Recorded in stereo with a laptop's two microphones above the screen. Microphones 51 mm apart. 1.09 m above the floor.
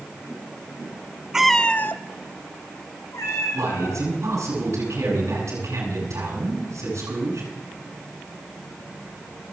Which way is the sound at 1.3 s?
10° right (ahead or behind).